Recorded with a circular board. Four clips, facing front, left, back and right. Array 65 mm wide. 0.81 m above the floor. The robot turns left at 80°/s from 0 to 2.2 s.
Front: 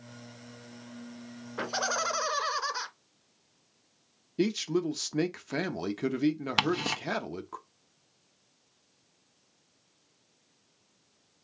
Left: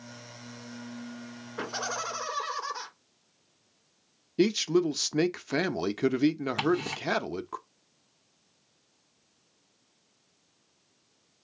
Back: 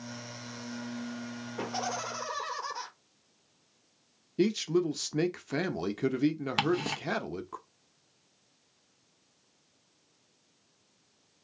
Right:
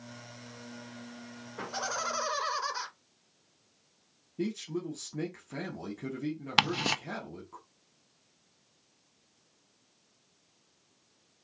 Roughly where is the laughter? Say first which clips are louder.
Left 1 dB, front 4 dB; ahead left.